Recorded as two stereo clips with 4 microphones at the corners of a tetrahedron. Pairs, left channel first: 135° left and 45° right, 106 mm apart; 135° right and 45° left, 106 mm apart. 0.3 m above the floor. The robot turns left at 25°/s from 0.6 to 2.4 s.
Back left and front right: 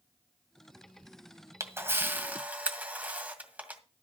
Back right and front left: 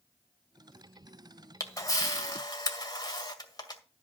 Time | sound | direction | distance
1.6 | a camera shutter | 90° right | 2.0 m